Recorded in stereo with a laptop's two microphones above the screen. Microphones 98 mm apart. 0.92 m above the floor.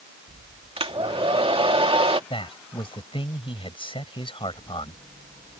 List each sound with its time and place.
0.8 s a hair dryer: 70° right (ahead or behind)
2.3 s a man speaking: 65° left (ahead or behind)